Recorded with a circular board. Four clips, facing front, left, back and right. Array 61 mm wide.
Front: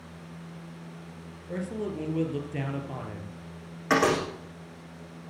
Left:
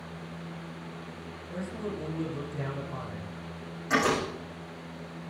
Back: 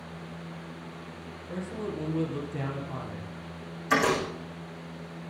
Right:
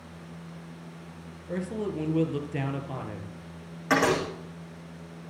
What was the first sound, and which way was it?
A man speaking, 60° right.